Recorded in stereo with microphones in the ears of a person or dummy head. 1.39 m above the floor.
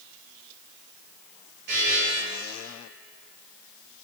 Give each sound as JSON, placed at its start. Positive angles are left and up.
{"t": 1.7, "sound": "a buzzer", "side_deg": -55, "distance_m": 2.5}